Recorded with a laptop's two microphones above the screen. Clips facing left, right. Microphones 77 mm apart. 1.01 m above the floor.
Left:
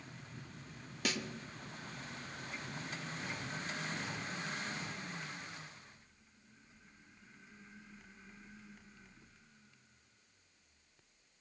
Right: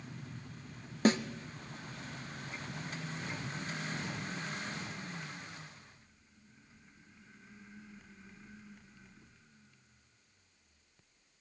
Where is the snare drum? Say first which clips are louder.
Right 11 dB; 35° right (ahead or behind), 0.7 m.